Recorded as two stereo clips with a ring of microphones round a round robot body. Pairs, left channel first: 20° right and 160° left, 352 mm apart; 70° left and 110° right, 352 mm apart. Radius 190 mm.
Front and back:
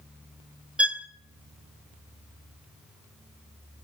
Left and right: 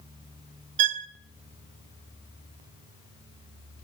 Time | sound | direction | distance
0.8 | a violin | 115° right | 1.3 m